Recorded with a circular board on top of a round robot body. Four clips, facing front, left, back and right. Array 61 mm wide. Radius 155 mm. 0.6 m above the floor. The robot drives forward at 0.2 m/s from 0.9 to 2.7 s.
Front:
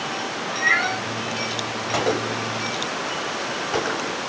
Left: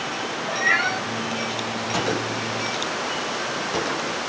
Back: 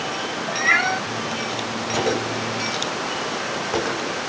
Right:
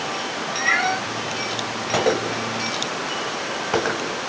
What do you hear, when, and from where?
0.5 s a cat meowing: 170° right, 2.5 m
1.9 s a gunshot: 85° right, 0.6 m; by 4.2 s 95° right, 0.6 m